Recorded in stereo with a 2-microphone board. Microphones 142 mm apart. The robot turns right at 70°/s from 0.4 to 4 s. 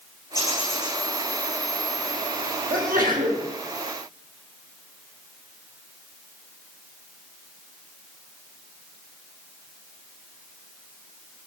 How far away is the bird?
About 6 m.